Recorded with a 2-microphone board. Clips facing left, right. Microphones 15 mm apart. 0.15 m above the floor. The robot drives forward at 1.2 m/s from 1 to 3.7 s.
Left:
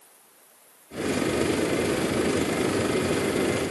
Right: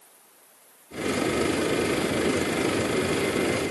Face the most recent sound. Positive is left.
No sound to turn to.